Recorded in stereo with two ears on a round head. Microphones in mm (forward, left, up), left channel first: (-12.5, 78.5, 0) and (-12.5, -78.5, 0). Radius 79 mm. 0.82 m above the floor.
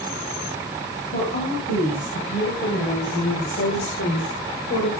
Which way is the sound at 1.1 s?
50° left (ahead or behind).